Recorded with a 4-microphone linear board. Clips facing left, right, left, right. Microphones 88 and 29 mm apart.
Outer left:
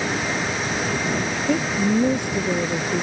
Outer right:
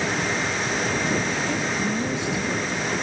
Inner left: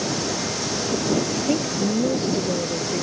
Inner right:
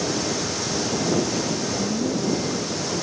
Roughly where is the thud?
No thud in this recording.